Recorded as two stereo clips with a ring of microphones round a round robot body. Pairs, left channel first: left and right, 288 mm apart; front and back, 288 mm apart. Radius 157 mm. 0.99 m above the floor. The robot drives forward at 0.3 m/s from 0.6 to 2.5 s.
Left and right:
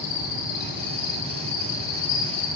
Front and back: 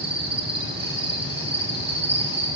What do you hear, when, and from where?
0.0 s an insect: 110° left, 9 m